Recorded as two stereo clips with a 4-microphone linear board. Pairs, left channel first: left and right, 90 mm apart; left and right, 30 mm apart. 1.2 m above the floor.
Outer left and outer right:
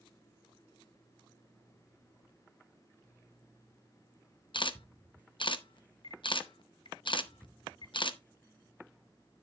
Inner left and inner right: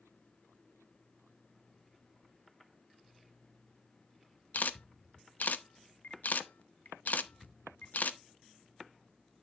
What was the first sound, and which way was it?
A camera shutter, 60° left (ahead or behind).